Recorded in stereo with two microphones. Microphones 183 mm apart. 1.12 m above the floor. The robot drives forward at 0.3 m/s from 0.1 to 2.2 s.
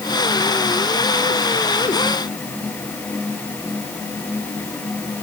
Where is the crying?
No crying in this recording.